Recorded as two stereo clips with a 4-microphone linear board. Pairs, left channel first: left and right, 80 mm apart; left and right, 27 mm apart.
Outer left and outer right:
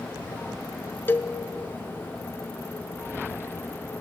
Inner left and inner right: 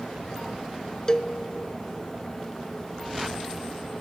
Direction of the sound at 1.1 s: 25° left (ahead or behind).